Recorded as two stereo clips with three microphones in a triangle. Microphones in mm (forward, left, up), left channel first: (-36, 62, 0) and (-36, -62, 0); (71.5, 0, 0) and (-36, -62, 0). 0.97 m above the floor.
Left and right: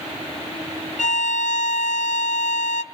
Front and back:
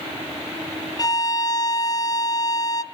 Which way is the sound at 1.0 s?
90° left.